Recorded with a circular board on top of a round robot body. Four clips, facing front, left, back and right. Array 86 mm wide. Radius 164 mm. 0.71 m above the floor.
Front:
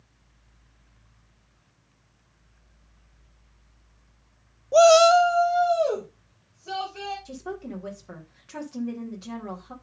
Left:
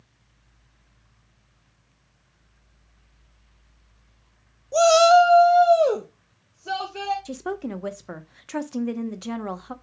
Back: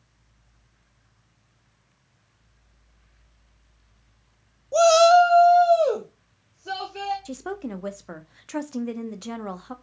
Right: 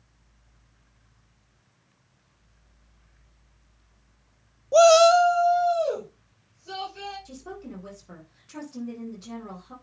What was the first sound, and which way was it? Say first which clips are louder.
A shout: even, even; 65° right.